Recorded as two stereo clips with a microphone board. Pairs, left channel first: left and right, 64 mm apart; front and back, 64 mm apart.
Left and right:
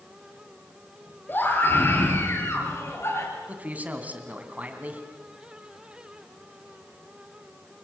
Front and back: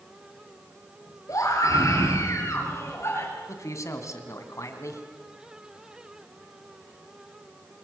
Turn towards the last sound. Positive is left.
turn(degrees=-30)